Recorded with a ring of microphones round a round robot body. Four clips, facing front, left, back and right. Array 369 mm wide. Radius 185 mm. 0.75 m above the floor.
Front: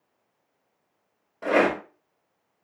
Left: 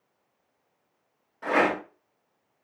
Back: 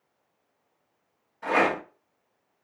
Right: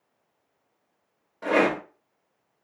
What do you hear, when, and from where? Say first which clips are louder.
1.4 s a rattle: right 2 dB, front 2 dB; 35° right, 1.6 m